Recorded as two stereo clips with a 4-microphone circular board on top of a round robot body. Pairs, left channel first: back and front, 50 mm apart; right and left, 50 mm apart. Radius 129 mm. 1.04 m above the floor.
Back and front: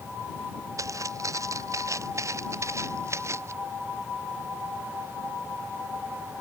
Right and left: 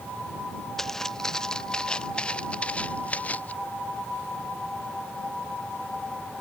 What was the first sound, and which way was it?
Footsteps, 10° right.